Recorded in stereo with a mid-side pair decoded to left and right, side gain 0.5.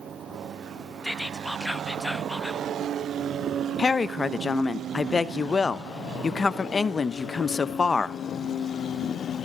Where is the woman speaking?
30° left, 0.8 m.